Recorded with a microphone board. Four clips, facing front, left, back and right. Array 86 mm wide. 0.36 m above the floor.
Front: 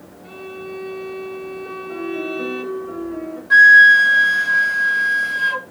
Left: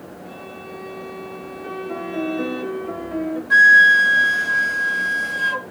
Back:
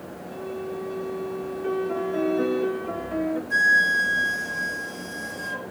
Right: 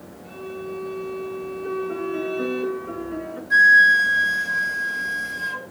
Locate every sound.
0.2 s a violin: 30° left, 3 m
1.6 s a piano: 140° left, 1.8 m
3.5 s a flute: 35° left, 0.5 m